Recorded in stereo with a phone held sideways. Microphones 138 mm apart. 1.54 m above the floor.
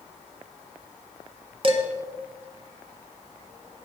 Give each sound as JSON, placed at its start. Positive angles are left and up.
{"t": 1.6, "sound": "dishes clattering", "side_deg": -40, "distance_m": 1.2}